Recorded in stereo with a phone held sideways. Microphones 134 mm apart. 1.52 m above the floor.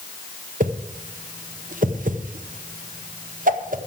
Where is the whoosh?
80° right, 0.9 m.